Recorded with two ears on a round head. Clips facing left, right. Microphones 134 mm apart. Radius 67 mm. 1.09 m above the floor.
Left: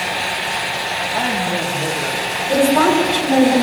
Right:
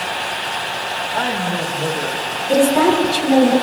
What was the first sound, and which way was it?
A woman speaking, 20° left (ahead or behind).